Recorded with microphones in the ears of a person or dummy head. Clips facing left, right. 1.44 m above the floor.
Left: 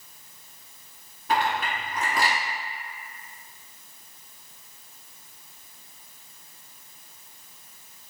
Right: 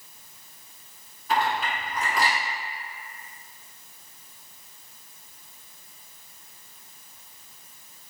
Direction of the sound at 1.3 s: 45° left (ahead or behind).